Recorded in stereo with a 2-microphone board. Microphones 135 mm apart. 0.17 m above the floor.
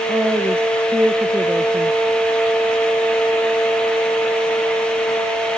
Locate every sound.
0.1 s a woman speaking: 20° right (ahead or behind)